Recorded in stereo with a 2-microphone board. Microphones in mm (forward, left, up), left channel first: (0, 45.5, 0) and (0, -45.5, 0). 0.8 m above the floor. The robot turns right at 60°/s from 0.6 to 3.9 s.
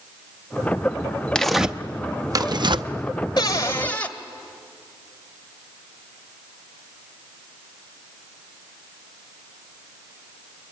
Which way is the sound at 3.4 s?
130° left.